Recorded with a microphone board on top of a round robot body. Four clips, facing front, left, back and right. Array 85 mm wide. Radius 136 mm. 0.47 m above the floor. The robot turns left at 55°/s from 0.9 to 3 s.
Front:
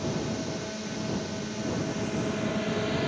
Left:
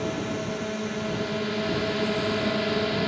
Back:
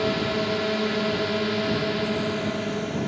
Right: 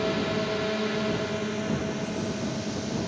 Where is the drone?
165° right; by 3.1 s 80° left.